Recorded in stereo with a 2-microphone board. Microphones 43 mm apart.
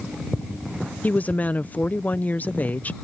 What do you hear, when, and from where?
1.0 s a woman speaking: 35° left (ahead or behind)